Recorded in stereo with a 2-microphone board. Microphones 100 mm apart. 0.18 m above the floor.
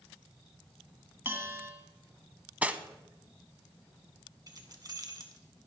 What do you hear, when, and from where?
1.2 s a bell: 25° right (ahead or behind), 1.6 m
2.6 s cutlery clinking: 15° right (ahead or behind), 0.6 m
4.5 s keys jangling: 40° right (ahead or behind), 1.2 m